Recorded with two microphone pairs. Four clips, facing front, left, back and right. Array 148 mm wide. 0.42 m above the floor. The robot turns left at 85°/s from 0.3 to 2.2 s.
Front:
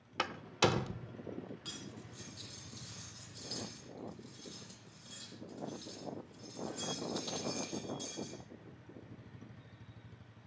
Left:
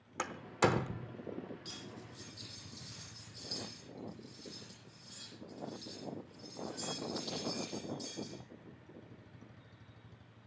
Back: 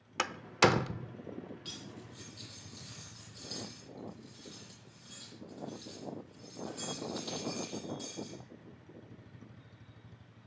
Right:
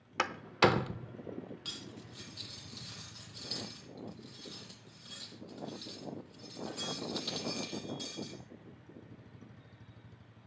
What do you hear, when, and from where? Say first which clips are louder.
0.2 s a door slam: right 4 dB, back 5 dB; 115° right, 0.8 m; by 1.1 s 175° left, 0.8 m
1.6 s cutlery clinking: right 1 dB, back 1 dB; 60° right, 8.5 m; by 8.4 s 105° right, 8.5 m